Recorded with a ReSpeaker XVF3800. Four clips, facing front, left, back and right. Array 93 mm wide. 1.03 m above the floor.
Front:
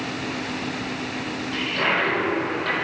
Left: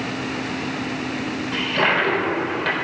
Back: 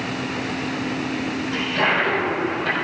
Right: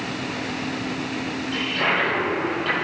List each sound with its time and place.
1.5 s a toilet flushing: 105° left, 4 m